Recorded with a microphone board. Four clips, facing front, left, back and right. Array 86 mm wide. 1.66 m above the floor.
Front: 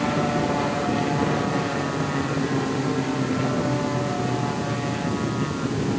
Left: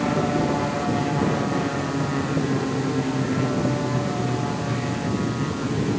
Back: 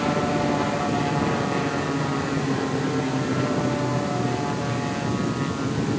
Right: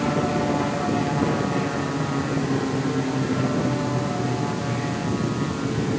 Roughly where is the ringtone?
I don't hear a ringtone.